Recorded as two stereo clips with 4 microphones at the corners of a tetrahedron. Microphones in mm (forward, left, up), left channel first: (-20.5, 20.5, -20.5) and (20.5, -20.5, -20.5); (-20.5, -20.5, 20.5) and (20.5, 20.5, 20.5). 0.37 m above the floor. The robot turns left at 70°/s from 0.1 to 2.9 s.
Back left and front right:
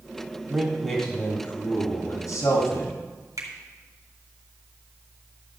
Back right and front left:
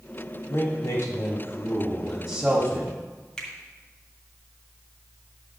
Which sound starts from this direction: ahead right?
A finger snap, at 3.4 s.